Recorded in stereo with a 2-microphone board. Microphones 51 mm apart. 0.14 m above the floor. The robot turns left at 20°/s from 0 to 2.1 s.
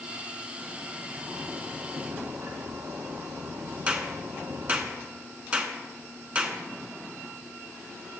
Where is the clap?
25° right (ahead or behind), 1.0 m.